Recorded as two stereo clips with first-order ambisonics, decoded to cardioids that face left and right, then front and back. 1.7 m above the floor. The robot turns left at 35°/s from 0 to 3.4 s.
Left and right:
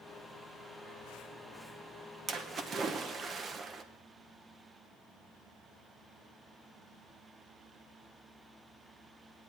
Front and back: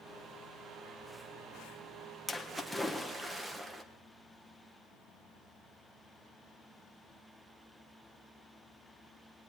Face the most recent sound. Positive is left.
turn(degrees=-120)